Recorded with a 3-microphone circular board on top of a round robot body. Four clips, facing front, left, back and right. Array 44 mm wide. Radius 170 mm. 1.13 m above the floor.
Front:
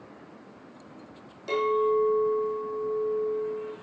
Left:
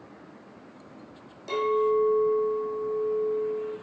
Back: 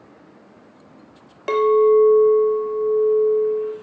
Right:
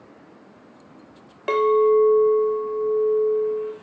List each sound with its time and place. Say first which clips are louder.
1.5 s a clink: right 7 dB, back 10 dB; 135° right, 0.8 m